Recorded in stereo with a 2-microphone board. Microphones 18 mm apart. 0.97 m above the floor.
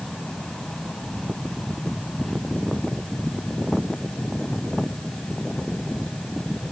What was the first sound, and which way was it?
Only background noise.